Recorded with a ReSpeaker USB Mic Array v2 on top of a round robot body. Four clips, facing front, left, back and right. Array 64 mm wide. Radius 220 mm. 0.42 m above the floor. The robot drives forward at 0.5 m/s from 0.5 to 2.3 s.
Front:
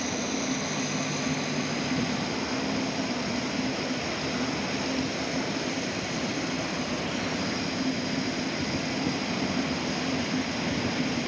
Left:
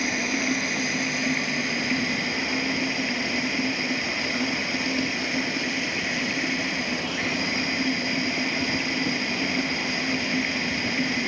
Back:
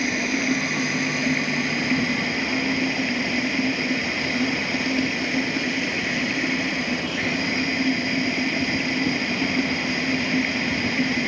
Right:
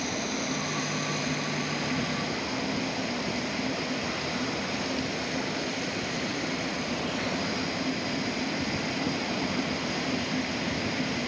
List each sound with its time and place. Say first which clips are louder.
0.0 s running water: left 5 dB, back 6 dB; 145° left; by 11.3 s 150° left